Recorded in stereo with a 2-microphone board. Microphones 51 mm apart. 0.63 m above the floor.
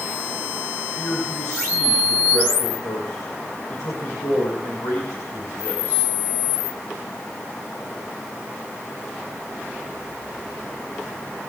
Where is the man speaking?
80° left, 6.5 m.